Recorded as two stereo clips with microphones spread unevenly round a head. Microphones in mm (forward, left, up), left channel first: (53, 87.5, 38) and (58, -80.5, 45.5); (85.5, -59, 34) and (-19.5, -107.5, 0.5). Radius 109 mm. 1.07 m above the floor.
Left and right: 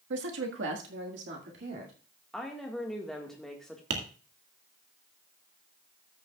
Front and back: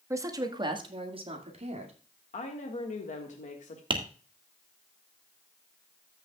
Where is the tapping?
110° right, 1.8 m.